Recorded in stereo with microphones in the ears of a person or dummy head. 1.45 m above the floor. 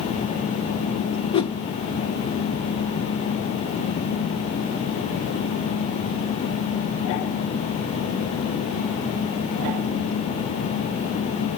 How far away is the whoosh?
About 0.7 m.